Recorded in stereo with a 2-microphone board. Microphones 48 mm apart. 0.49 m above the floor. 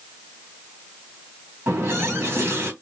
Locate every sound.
1.7 s a running tap: 60° right (ahead or behind), 2 m